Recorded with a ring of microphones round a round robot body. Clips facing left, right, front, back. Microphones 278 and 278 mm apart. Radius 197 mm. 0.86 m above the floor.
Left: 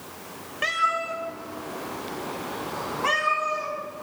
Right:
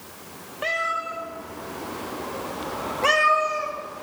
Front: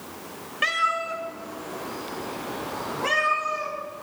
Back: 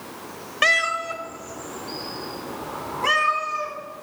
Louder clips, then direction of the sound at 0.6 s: Right 2 dB, back 5 dB; 160° left.